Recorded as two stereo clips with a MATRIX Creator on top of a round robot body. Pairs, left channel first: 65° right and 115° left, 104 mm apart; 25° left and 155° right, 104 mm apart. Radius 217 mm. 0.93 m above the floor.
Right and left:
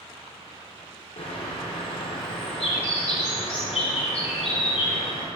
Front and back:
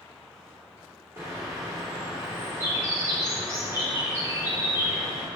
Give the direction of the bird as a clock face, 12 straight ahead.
3 o'clock.